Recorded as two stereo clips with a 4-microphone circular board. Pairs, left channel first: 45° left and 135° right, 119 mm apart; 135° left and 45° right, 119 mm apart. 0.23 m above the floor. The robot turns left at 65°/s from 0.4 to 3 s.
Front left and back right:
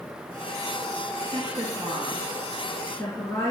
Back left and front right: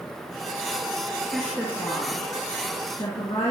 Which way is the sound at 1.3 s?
140° right.